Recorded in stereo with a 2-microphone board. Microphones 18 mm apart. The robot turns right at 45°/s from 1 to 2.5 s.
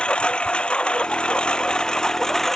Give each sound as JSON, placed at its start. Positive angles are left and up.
{"t": 0.0, "sound": "a lawn mower", "azimuth_deg": 85}